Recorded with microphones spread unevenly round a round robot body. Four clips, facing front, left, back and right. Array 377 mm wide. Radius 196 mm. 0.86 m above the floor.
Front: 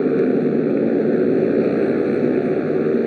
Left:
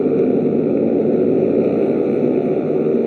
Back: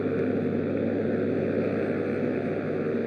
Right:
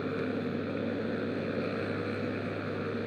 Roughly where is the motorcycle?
Ahead left.